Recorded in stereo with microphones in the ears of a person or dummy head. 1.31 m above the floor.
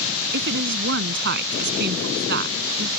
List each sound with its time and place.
0.3 s a woman speaking: 60° right (ahead or behind); by 2.9 s 50° right (ahead or behind)